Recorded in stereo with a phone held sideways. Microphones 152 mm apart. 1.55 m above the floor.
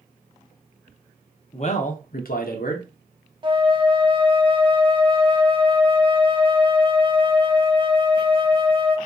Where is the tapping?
No tapping in this recording.